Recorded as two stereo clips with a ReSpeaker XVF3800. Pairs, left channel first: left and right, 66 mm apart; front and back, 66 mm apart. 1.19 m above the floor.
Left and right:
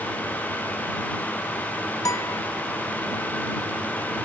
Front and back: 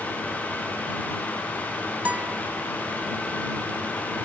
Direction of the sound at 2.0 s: 115° left.